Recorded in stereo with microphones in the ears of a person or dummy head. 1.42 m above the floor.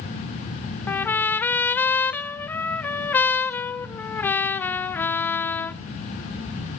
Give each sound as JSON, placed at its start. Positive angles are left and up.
{"t": 0.9, "sound": "a trumpet", "side_deg": 10, "distance_m": 0.5}